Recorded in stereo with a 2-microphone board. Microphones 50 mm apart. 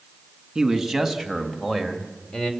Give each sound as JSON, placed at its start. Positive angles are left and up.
{"t": 0.6, "sound": "a man speaking", "side_deg": -5, "distance_m": 2.0}